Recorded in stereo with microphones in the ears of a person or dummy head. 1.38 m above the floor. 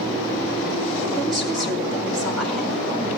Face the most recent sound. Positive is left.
turn(degrees=5)  # may be behind; listen again after turning